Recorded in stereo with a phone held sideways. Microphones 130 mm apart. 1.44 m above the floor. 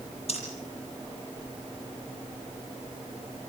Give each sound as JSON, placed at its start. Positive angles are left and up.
{"t": 0.3, "sound": "breathing", "side_deg": 50, "distance_m": 10.0}